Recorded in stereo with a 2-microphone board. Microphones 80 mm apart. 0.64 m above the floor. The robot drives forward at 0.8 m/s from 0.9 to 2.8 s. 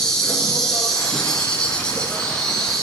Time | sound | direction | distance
0.0 | an insect | 5° left (ahead or behind) | 0.9 m